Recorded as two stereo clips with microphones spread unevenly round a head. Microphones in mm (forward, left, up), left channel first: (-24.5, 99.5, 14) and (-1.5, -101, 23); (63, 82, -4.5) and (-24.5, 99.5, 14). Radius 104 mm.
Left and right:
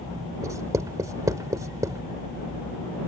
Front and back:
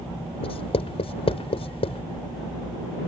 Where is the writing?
10° right.